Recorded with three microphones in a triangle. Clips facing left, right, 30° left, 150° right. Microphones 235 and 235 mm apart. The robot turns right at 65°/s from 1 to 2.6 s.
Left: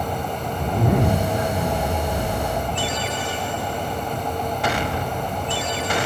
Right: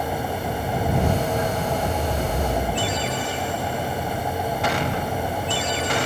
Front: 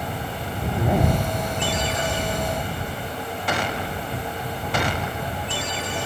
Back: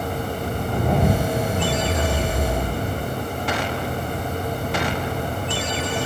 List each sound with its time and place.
0.6 s a zipper: 115° left; by 3.2 s 140° right